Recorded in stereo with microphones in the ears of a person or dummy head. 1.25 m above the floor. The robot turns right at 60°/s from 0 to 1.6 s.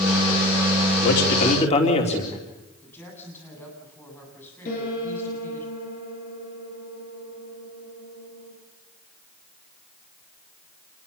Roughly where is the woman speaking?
Centre.